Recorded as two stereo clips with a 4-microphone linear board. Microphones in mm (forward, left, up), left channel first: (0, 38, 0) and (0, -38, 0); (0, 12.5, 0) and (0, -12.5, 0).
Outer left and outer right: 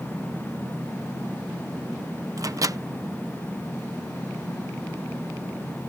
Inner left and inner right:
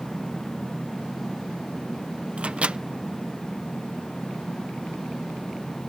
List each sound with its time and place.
2.4 s a microwave: 55° right (ahead or behind)